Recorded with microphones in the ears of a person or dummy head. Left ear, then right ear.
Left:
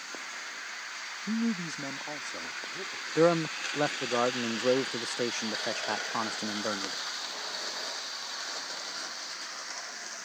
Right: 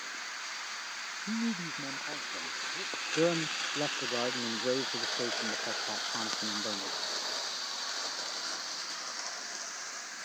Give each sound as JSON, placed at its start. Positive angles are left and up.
{"t": 1.3, "sound": "a man speaking", "side_deg": 85}
{"t": 3.1, "sound": "a man speaking", "side_deg": 50}